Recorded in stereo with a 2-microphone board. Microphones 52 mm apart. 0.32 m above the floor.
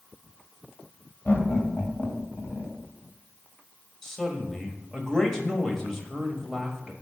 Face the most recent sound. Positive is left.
turn(degrees=10)  # may be behind; listen again after turning